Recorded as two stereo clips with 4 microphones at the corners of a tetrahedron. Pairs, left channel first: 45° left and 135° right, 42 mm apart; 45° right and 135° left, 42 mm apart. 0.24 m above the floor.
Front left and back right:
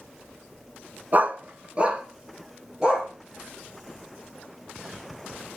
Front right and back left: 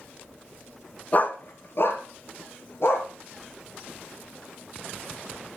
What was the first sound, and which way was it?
A dog barking, 95° right.